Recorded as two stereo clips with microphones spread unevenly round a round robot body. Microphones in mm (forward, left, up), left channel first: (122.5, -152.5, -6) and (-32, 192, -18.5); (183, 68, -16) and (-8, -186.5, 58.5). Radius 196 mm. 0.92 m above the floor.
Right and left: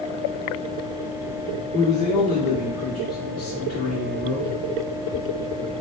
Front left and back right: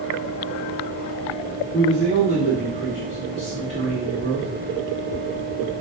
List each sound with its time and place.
1.7 s a man speaking: straight ahead, 2.5 m